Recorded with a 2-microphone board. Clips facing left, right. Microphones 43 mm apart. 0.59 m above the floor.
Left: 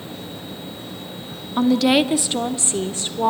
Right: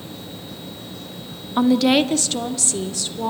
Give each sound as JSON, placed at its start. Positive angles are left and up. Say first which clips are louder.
{"t": 1.6, "sound": "a woman speaking", "louder": "even", "side_deg": -10, "distance_m": 0.7}